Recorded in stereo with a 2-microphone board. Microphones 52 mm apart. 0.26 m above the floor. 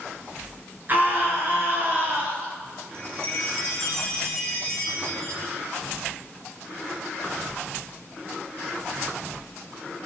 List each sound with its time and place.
0.9 s a scream: 40° right (ahead or behind), 4 m
2.9 s a chime: 55° right (ahead or behind), 2.5 m